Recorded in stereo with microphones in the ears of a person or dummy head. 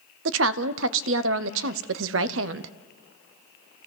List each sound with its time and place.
0.2 s a woman speaking: 75° right (ahead or behind), 0.8 m